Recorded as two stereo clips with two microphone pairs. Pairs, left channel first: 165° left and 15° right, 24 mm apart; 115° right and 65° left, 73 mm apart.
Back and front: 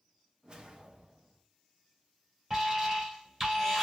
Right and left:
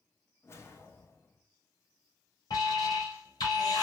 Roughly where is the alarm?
Right.